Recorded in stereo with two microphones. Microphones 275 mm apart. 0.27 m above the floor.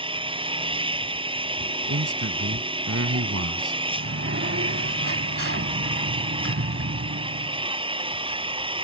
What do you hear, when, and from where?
0.0 s an engine running: 20° right (ahead or behind)
1.9 s a man speaking: 60° right (ahead or behind)
3.9 s a sliding door: 50° right (ahead or behind)